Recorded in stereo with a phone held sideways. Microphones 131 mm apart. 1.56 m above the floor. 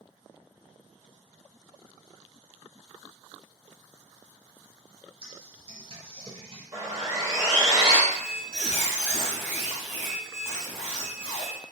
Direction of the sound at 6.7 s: 25° right (ahead or behind).